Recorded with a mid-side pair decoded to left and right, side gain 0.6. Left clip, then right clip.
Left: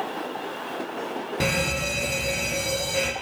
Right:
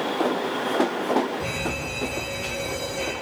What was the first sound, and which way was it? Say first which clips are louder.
A fire alarm: left 3 dB; 65° left.